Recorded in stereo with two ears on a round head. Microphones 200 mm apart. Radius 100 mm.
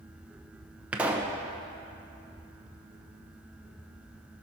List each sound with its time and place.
0.9 s a pop: 5° right (ahead or behind), 0.8 m